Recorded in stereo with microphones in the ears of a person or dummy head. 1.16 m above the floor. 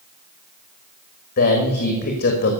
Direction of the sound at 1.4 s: 60° left (ahead or behind).